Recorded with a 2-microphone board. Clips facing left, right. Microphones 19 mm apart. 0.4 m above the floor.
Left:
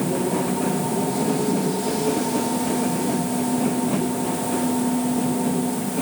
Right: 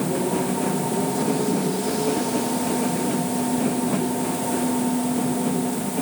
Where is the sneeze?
I don't hear a sneeze.